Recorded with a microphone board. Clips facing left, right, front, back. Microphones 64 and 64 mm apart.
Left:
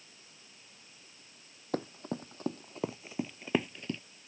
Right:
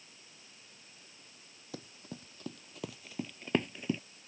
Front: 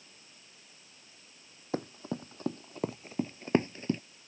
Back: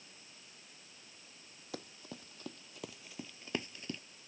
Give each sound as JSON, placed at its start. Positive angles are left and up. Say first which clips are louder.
{"t": 1.7, "sound": "running footsteps", "louder": "left 11 dB, front 12 dB", "azimuth_deg": 55}